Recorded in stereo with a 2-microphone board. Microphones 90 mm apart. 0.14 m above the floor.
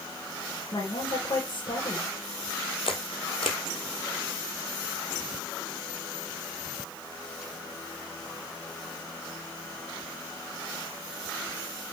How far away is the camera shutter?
About 1.6 m.